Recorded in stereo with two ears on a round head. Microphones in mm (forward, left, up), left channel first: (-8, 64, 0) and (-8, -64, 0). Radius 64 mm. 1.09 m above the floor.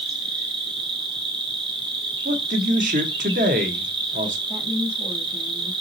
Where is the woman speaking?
40° right (ahead or behind), 2.5 m.